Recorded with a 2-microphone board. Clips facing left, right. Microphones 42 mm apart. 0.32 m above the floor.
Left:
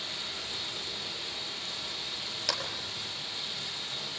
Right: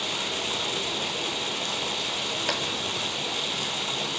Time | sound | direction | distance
0.0 | running water | 70° right (ahead or behind) | 1.8 m
2.5 | a clap | 25° right (ahead or behind) | 4 m